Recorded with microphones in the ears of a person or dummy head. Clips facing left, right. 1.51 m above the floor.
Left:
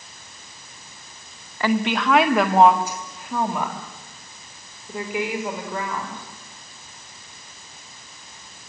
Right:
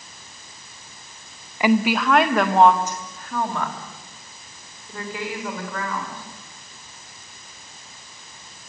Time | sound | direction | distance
1.6 | a woman speaking | 10° right (ahead or behind) | 1.4 m